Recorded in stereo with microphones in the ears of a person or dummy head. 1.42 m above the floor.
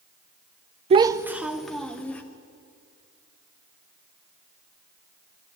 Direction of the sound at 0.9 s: 30° right (ahead or behind).